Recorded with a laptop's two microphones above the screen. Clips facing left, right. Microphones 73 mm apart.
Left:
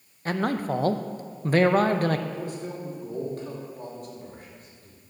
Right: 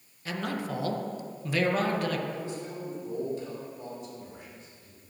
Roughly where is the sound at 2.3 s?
Left.